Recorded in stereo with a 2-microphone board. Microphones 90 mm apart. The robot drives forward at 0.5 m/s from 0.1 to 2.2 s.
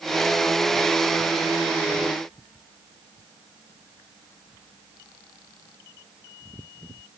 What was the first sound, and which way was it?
Only background noise.